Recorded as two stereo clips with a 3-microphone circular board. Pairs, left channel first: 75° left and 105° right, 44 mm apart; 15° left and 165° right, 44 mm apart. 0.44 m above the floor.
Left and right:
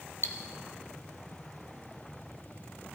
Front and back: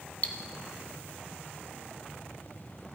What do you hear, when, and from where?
0.2 s cutlery clinking: 65° left, 1.1 m